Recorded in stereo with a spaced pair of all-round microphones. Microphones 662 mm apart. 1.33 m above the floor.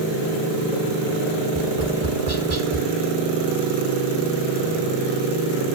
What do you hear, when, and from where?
1.5 s tapping: 70° right (ahead or behind), 1.6 m